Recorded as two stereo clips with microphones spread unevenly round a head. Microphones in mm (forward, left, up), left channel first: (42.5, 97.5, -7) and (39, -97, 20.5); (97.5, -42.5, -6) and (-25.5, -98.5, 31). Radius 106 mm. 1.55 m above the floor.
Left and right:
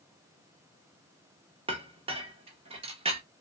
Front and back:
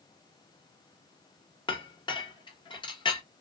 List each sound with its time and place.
1.7 s a clink: 35° right, 1.3 m